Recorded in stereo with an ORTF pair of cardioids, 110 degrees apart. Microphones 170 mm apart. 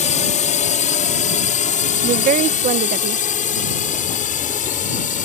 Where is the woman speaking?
55° right.